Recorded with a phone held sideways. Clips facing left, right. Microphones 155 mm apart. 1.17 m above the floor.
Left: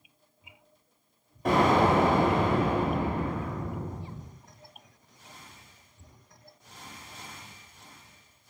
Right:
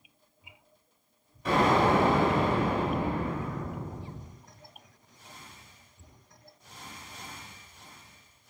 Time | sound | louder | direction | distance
1.4 | an explosion | left 1 dB | 50° left (ahead or behind) | 4 m